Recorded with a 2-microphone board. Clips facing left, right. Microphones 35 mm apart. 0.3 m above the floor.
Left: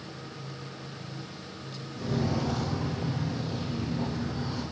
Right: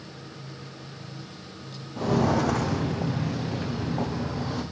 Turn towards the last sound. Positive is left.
turn(degrees=-80)